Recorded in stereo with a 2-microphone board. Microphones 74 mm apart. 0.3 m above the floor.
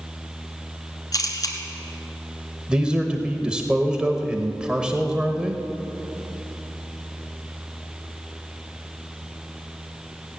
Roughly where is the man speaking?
Centre.